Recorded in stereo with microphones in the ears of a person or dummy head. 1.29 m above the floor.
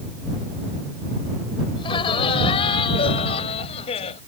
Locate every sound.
1.8 s laughter: 30° left (ahead or behind); by 4.2 s 35° left (ahead or behind)